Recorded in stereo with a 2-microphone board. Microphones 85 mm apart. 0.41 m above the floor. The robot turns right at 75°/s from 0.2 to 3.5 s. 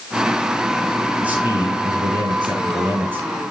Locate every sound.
1.2 s a man speaking: 170° right, 5 m; by 3.3 s 15° right, 5 m